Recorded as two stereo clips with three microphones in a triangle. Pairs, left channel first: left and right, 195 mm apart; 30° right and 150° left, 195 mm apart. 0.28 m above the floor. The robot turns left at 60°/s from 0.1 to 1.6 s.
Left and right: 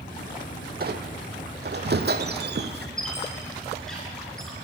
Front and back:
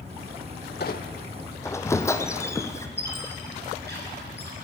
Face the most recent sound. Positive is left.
turn(degrees=175)